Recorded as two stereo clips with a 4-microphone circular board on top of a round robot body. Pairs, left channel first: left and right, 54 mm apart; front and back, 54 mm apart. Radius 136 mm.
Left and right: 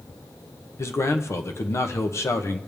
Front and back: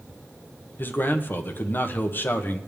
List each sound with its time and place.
0.8 s a man speaking: 55° left, 1.0 m